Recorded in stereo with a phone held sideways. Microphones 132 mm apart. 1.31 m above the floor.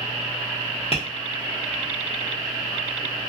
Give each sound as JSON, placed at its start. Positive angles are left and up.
{"t": 0.9, "sound": "tapping", "side_deg": 50, "distance_m": 0.9}